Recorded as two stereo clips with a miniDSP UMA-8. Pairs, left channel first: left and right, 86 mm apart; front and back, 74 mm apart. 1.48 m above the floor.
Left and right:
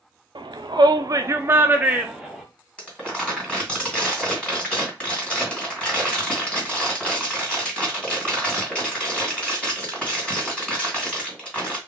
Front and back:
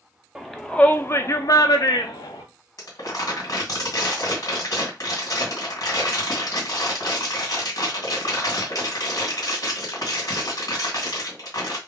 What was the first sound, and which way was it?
A shout, 95° right.